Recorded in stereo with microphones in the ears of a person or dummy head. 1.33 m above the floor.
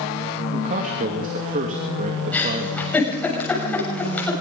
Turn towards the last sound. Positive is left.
turn(degrees=10)  # may be behind; listen again after turning